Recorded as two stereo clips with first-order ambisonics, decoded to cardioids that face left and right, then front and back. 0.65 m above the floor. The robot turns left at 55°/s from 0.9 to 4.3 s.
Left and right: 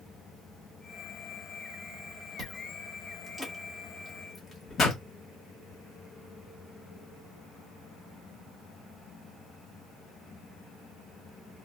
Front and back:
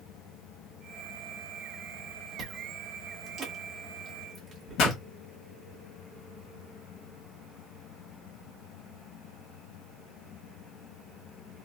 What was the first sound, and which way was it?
Chewing, 120° right.